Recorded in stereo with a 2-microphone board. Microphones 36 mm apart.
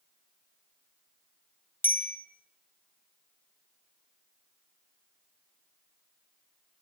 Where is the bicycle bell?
70° left (ahead or behind), 3.5 m.